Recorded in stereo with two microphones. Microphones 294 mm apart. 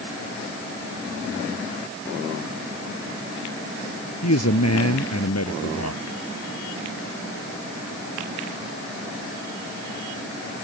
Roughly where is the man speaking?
Left.